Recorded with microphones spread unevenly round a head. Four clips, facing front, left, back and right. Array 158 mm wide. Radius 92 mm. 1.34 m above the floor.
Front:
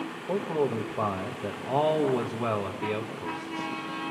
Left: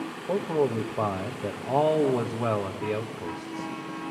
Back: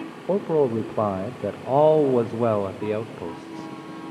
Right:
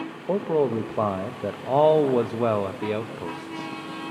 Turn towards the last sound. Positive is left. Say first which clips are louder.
# right 3 dB, back 7 dB
turn(degrees=-155)